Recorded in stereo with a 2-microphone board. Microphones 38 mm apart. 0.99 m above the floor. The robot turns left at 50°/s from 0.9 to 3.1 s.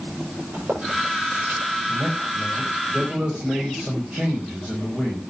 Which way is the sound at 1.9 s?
100° right.